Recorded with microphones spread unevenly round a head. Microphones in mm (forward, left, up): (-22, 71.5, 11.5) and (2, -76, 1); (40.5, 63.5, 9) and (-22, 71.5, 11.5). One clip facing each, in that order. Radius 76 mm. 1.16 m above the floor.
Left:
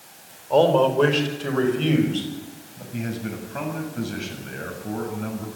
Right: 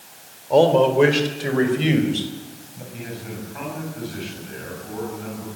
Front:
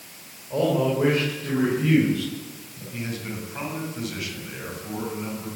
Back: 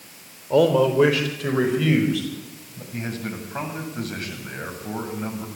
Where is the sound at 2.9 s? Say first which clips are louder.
Left 5 dB, back 2 dB; 130° left, 8 m.